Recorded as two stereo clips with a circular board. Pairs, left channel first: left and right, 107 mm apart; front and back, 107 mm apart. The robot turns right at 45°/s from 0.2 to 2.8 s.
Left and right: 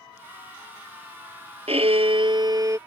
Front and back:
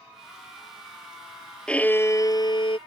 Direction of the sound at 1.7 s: 80° right.